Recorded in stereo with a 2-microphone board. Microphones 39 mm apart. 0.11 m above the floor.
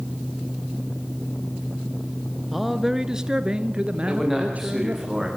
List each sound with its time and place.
2.5 s a man speaking: centre (ahead or behind), 1.3 m; by 5.1 s 45° right (ahead or behind), 1.9 m
4.1 s a man speaking: 10° right (ahead or behind), 9 m